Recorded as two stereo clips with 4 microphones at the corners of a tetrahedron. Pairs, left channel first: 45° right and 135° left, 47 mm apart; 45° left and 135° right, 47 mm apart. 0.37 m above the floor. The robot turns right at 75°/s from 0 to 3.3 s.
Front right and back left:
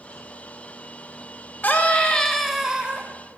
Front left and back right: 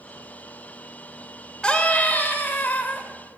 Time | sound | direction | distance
1.6 | a scream | 15° right | 1.2 m